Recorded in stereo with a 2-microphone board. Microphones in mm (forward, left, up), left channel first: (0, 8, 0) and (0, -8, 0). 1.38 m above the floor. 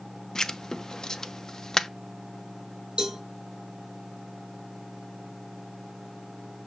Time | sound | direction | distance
0.3 | writing | 40° left (ahead or behind) | 0.5 m
3.0 | a cowbell | 60° right (ahead or behind) | 2.5 m